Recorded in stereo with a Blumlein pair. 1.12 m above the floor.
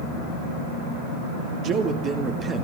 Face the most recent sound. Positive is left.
turn(degrees=-15)